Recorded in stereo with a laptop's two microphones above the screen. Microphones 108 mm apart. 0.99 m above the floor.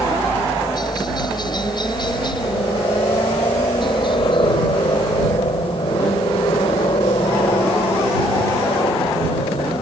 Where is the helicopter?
40° left (ahead or behind); by 9.8 s 60° left (ahead or behind).